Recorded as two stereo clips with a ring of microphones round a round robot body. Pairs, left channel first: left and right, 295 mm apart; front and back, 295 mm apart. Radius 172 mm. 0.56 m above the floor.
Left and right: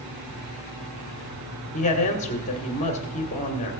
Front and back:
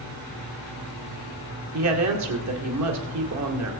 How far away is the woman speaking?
About 2 m.